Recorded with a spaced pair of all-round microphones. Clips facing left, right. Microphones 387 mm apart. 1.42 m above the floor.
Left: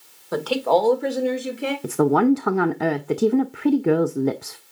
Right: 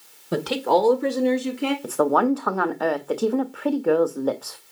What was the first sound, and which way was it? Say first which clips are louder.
A woman speaking: left 1 dB; 45° right (ahead or behind).